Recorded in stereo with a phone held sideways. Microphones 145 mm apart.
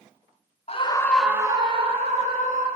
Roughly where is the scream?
Left.